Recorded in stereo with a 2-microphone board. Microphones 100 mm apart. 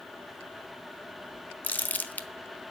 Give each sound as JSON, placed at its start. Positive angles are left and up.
{"t": 1.6, "sound": "crumpling", "side_deg": 20, "distance_m": 0.9}